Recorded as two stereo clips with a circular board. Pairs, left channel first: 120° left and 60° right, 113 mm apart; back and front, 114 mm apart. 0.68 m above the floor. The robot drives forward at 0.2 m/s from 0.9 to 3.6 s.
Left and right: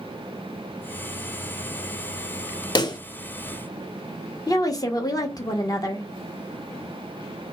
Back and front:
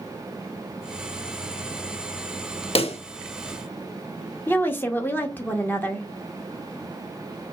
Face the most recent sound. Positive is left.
turn(degrees=125)